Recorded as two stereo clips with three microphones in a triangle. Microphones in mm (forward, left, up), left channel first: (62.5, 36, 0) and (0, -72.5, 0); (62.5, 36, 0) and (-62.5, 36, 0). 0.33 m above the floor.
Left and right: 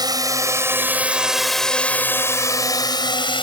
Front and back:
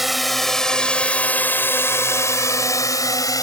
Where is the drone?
95° right; by 3.4 s 45° left.